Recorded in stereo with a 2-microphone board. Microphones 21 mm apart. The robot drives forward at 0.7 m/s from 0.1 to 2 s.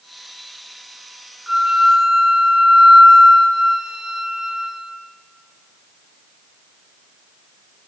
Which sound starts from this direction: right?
A flute, at 1.5 s.